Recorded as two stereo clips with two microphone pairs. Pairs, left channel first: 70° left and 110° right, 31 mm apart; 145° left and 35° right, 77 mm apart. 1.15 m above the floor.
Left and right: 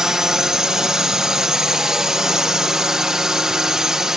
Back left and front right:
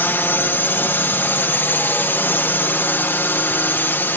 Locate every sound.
0.0 s a drone: 175° right